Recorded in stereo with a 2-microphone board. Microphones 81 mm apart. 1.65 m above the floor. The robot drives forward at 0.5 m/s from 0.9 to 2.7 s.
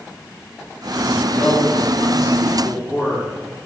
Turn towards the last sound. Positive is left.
turn(degrees=-5)  # may be behind; listen again after turning